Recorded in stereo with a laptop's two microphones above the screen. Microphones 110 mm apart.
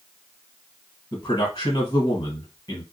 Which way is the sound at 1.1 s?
35° left (ahead or behind).